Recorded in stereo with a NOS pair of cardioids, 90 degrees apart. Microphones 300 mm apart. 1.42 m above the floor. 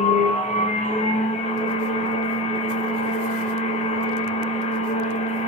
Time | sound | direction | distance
0.0 | a machine running | 25° left | 0.8 m